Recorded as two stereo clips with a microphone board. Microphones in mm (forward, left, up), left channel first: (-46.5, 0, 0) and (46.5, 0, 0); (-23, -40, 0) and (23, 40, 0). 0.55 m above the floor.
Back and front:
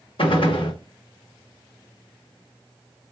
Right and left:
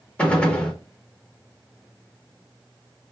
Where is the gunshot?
165° left, 0.6 m.